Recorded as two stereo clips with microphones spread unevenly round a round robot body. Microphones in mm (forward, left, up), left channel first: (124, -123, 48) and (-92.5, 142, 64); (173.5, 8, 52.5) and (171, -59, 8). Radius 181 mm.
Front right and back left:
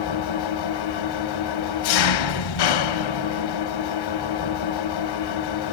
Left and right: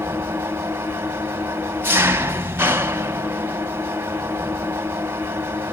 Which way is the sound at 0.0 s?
50° right.